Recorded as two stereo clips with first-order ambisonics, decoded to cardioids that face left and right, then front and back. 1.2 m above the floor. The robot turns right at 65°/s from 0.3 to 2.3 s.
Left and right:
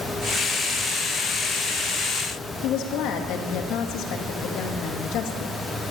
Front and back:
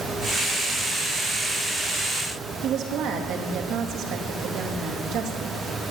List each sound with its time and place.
2.6 s a woman speaking: 130° left, 1.2 m